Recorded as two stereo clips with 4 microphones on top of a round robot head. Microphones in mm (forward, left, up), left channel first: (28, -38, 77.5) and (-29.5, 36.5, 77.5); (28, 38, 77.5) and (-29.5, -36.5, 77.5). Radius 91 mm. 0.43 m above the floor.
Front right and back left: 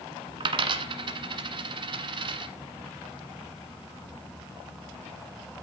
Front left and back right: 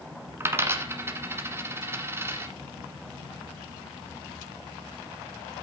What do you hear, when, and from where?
0.4 s a dropped coin: 165° left, 1.4 m